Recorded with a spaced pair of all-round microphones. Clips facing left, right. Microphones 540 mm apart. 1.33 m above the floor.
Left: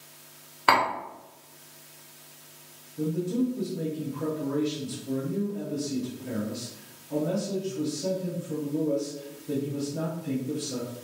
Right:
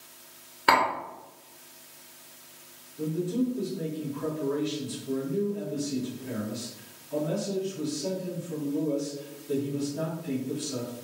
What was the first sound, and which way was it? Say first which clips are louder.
Tapping: even; centre (ahead or behind).